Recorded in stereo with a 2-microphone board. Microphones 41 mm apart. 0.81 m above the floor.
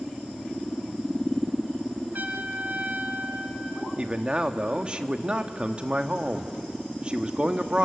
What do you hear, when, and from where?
2.1 s a trumpet: 45° right (ahead or behind), 1.6 m
4.0 s a man speaking: 25° right (ahead or behind), 1.2 m